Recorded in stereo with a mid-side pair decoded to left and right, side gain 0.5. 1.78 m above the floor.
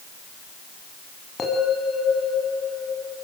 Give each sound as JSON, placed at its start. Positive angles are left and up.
{"t": 1.4, "sound": "a bell", "azimuth_deg": 35, "distance_m": 10.0}